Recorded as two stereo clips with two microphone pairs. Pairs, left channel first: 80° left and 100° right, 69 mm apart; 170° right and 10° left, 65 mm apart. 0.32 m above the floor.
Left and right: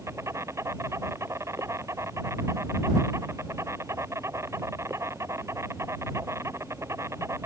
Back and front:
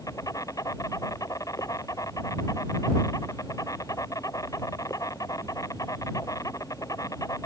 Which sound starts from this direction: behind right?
An insect, at 0.0 s.